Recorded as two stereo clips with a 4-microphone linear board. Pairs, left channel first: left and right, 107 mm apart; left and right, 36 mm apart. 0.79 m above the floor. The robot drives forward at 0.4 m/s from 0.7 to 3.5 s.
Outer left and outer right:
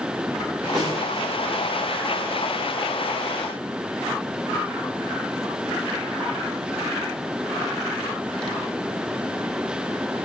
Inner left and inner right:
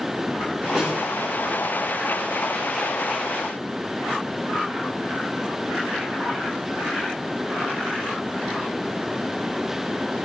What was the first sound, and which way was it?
A snare drum, 5° right (ahead or behind).